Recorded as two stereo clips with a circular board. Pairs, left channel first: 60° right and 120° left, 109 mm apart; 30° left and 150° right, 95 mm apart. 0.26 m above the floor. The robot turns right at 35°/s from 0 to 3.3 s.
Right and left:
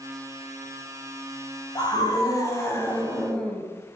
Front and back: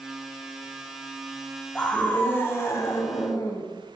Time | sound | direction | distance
1.8 | a scream | 45° right | 1.2 m